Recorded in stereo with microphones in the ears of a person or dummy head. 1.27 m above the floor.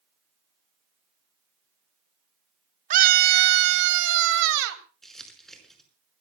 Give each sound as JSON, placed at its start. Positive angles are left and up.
{"t": 2.9, "sound": "a scream", "side_deg": -45, "distance_m": 0.9}
{"t": 5.0, "sound": "crumpling", "side_deg": 0, "distance_m": 5.0}